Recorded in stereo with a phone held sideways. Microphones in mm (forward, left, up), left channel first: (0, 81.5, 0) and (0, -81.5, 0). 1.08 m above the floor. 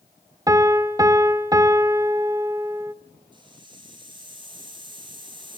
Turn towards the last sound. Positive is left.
turn(degrees=-30)  # may be behind; listen again after turning